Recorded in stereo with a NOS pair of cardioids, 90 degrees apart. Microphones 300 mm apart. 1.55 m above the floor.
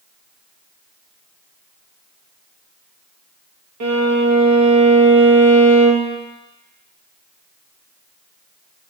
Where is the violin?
65° right, 1.1 m.